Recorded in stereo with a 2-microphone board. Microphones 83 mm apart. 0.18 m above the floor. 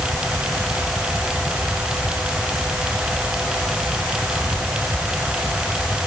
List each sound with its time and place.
Only background noise.